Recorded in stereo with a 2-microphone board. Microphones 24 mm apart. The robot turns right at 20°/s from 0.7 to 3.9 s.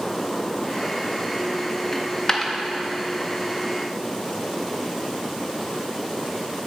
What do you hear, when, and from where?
1.9 s a dropped coin: 20° left (ahead or behind), 0.5 m; by 2.5 s 25° left (ahead or behind), 0.5 m